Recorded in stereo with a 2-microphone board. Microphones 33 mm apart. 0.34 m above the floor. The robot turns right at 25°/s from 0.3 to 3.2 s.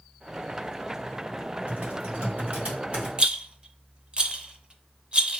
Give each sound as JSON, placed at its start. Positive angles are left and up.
{"t": 1.7, "sound": "typing on a keyboard", "side_deg": -55, "distance_m": 2.0}
{"t": 3.2, "sound": "a rattle", "side_deg": -30, "distance_m": 0.5}